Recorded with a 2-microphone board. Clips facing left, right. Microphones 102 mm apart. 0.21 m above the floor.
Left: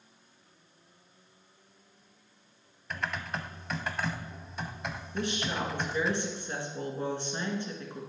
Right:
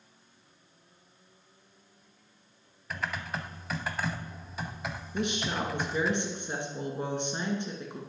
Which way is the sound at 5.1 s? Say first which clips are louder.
Right 1 dB; 20° right (ahead or behind).